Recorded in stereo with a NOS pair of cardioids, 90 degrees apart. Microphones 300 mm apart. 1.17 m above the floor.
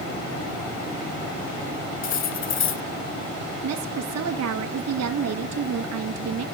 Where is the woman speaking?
65° right, 1.5 m.